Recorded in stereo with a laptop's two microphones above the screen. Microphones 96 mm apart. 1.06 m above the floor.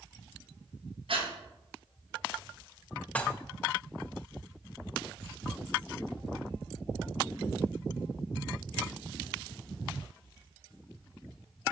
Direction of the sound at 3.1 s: 15° left (ahead or behind).